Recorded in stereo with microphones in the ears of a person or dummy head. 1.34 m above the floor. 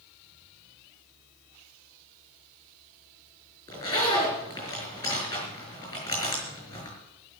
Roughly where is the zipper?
Centre.